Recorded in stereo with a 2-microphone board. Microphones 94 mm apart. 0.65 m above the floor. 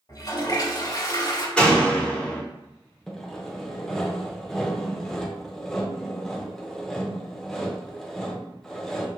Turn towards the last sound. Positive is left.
turn(degrees=5)  # may be behind; listen again after turning